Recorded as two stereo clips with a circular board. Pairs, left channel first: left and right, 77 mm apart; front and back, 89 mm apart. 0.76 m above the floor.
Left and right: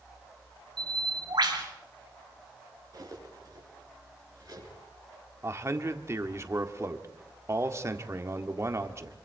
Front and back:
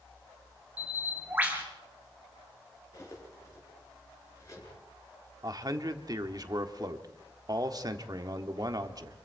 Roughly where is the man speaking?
Behind right.